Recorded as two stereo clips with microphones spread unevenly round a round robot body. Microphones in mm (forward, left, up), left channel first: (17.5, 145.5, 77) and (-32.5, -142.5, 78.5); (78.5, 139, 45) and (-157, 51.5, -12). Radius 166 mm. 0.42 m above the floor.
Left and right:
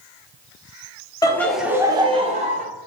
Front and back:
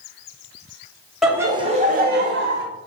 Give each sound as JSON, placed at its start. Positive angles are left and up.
{"t": 1.2, "sound": "laughter", "azimuth_deg": 140, "distance_m": 0.8}